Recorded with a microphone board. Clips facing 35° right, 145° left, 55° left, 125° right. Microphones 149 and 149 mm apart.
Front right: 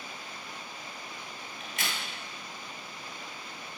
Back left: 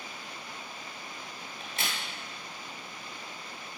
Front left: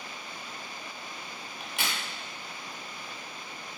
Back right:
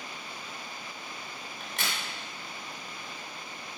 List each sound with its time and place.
1.6 s a crack: 130° left, 0.9 m